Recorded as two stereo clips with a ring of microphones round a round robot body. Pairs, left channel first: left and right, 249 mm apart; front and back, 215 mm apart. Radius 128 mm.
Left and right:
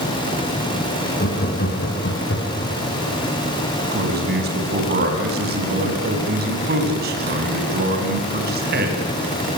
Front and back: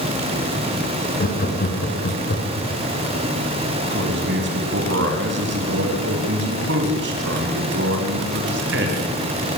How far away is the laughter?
About 5.5 m.